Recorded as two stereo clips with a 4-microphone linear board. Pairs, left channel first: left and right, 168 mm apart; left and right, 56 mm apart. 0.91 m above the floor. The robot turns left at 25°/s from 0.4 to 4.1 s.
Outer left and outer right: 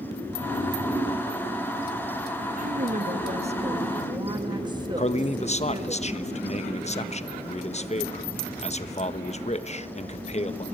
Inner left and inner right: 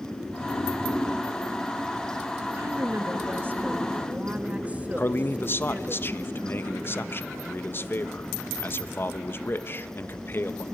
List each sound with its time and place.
2.6 s a woman speaking: 110° right, 1.6 m; by 6.0 s 150° right, 1.6 m
5.0 s a man speaking: 40° left (ahead or behind), 0.9 m